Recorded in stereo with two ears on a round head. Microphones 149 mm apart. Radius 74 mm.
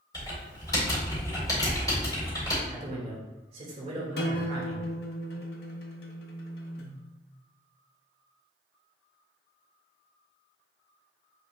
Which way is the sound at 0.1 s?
20° left (ahead or behind).